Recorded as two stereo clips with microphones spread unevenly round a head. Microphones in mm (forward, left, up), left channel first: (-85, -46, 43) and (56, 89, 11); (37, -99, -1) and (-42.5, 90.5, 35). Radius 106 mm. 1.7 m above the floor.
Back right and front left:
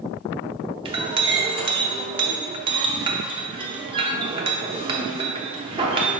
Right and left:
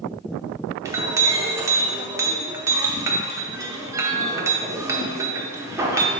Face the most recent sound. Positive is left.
turn(degrees=95)